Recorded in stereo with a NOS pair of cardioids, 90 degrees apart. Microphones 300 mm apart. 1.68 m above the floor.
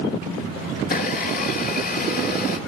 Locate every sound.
0.8 s a blender: 35° left, 5 m